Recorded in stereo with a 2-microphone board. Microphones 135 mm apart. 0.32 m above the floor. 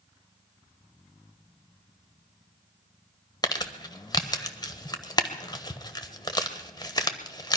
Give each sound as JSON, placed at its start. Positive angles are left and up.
{"t": 3.4, "sound": "crumpling", "side_deg": 30, "distance_m": 1.1}